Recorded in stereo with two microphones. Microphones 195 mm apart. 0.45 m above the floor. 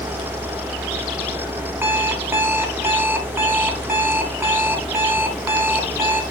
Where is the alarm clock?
10° right (ahead or behind), 1.8 m.